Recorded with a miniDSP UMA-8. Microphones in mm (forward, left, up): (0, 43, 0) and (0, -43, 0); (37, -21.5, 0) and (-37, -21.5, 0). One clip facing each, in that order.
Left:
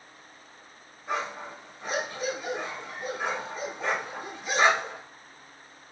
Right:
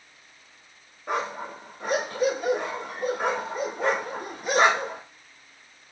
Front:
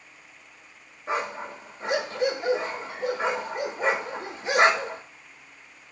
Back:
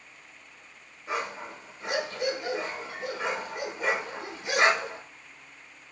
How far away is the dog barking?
About 0.7 m.